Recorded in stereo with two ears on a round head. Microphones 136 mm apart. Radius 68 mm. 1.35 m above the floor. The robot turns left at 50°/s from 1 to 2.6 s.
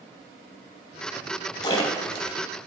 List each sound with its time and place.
1.6 s a splash: 25° left (ahead or behind), 0.9 m; by 2.3 s centre (ahead or behind), 0.9 m